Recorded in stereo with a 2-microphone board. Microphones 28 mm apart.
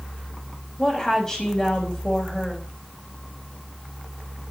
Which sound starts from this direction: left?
A woman speaking, at 0.8 s.